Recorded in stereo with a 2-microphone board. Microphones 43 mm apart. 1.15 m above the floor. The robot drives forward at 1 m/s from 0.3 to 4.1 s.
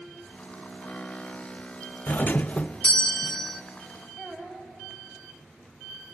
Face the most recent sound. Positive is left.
turn(degrees=0)  # may be behind; listen again after turning